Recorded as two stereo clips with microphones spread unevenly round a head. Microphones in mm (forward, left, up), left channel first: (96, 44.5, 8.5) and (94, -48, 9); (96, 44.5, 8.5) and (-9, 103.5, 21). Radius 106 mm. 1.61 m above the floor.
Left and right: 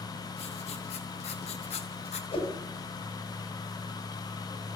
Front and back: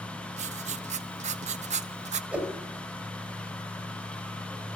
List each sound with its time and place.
0.4 s writing: 125° left, 1.1 m
2.3 s a whoosh: 75° left, 6 m